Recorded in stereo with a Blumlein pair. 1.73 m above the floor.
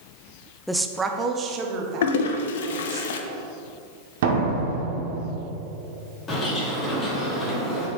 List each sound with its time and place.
0.7 s a woman speaking: straight ahead, 0.5 m; by 3.0 s 40° right, 1.9 m
2.0 s a toilet flushing: 60° left, 0.6 m
4.2 s a door slam: 55° right, 1.8 m
6.3 s a bird: 25° left, 1.8 m